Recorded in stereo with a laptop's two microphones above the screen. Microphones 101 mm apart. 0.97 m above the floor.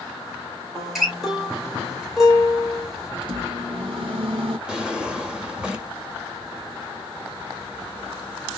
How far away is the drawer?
About 0.7 m.